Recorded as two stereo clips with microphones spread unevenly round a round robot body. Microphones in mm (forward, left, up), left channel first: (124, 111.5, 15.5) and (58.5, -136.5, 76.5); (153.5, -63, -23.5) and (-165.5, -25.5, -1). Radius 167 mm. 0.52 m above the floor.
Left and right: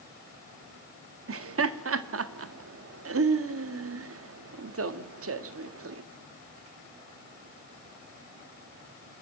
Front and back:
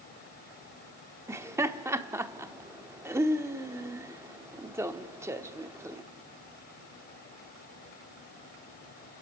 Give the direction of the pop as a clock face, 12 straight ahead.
I don't hear a pop.